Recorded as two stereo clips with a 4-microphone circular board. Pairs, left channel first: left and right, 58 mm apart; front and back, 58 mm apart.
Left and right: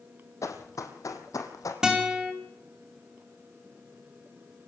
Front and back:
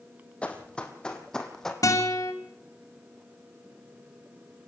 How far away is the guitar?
About 6.5 m.